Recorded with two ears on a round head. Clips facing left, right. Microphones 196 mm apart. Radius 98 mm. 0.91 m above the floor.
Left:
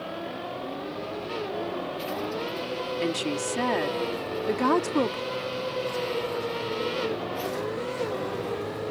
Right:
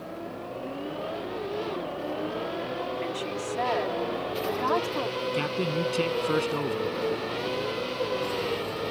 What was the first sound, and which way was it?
A woman speaking, 55° left (ahead or behind).